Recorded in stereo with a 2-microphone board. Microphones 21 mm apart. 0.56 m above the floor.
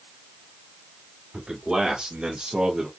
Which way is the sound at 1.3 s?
40° right (ahead or behind).